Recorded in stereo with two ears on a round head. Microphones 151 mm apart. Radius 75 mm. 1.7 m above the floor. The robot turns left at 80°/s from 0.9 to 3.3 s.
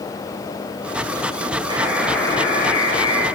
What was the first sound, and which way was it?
A buzzer, 150° right.